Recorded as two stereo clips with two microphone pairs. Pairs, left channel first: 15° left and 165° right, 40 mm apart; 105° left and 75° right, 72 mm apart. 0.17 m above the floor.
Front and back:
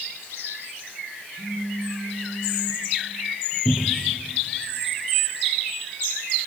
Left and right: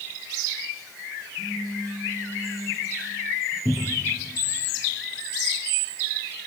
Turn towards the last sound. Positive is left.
turn(degrees=-25)